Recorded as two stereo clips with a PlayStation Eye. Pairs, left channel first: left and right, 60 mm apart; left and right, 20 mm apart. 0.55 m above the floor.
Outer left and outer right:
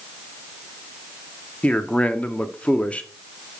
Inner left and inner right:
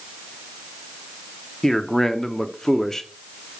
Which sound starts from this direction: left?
A man speaking, at 1.6 s.